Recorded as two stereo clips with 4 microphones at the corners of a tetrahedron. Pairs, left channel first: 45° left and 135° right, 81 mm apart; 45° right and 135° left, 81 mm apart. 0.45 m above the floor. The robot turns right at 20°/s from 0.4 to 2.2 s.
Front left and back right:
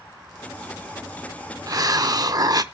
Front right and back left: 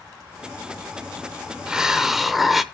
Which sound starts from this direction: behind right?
A hiss, at 1.7 s.